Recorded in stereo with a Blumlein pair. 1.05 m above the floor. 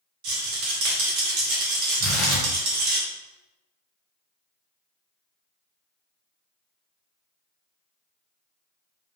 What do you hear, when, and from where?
0.2 s a rattle: 45° right, 1.2 m
2.0 s tearing paper: 20° left, 1.1 m